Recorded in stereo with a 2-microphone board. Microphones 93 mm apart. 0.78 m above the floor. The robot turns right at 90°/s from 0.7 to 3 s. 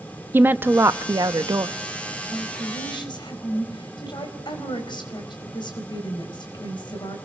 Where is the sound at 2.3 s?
55° left, 4.5 m; by 7.2 s 120° left, 4.5 m.